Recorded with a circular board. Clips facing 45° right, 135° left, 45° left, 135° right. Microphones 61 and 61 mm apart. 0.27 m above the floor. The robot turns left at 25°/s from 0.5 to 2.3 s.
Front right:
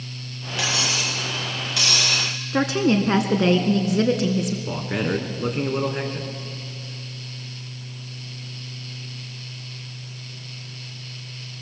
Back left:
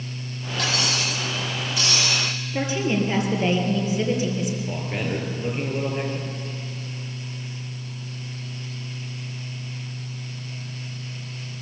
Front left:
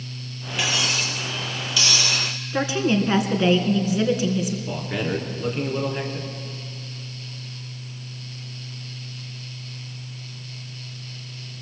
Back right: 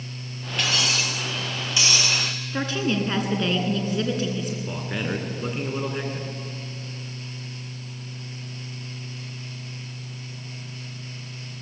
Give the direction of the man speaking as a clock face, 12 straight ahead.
2 o'clock.